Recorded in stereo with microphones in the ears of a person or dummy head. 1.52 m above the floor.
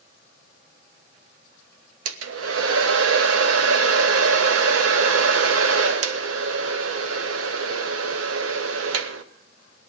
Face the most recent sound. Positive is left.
turn(degrees=-80)